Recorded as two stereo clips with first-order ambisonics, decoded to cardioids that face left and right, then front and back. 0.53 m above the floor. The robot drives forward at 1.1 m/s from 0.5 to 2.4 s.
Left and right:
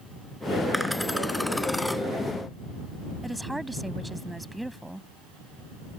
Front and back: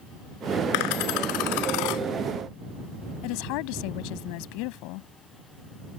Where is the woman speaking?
5° right.